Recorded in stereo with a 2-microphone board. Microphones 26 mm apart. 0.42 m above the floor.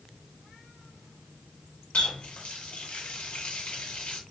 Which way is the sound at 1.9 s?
50° left (ahead or behind).